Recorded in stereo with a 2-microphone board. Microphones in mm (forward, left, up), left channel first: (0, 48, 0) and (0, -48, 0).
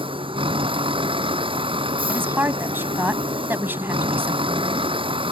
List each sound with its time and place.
0.0 s a vehicle: 65° right (ahead or behind)
2.1 s a woman speaking: 20° right (ahead or behind)